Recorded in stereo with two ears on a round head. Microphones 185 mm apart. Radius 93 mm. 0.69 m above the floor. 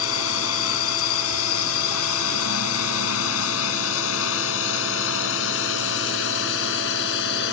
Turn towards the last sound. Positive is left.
turn(degrees=65)  # may be behind; listen again after turning